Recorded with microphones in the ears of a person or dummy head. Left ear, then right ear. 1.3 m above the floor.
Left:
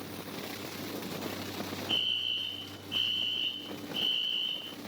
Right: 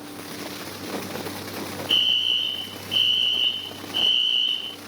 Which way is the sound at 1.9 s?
30° right (ahead or behind).